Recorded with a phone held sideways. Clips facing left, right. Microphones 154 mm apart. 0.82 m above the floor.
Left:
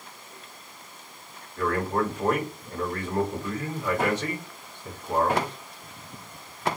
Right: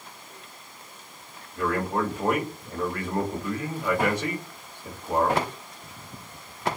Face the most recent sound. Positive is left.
turn(degrees=-15)  # may be behind; listen again after turning